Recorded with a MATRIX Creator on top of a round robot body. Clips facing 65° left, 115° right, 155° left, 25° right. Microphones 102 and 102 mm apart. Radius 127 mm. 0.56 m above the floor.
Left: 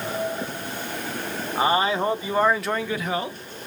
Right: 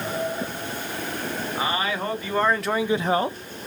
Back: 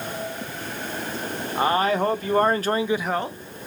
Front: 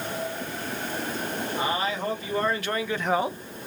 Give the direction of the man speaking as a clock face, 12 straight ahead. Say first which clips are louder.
Left 6 dB, back 8 dB; 8 o'clock.